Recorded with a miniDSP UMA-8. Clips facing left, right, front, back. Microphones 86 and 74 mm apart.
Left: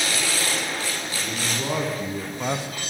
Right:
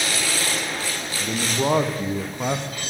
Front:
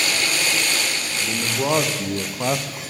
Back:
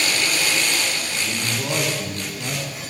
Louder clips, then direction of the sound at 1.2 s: Right 8 dB, front 6 dB; 55° right.